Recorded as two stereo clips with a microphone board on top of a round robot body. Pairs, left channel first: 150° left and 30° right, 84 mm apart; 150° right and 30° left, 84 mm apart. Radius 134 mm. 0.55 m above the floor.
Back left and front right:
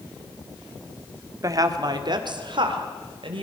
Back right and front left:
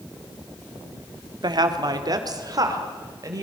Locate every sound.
1.4 s a woman speaking: 10° left, 2.0 m; by 3.4 s 20° right, 4 m